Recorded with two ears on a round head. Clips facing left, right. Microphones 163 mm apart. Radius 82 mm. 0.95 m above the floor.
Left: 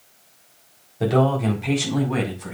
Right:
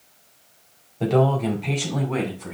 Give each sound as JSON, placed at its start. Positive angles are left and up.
{"t": 1.0, "sound": "a man speaking", "side_deg": 10, "distance_m": 4.0}